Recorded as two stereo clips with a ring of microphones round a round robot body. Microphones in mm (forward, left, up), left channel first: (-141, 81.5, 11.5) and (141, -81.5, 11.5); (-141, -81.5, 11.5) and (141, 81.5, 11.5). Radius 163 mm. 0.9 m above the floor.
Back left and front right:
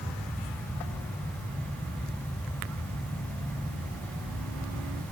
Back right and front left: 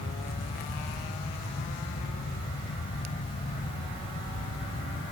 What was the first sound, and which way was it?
Only background noise.